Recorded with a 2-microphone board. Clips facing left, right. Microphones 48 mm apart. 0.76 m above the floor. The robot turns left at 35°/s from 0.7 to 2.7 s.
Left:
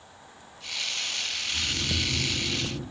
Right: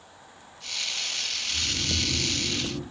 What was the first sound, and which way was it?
Snoring, 135° right.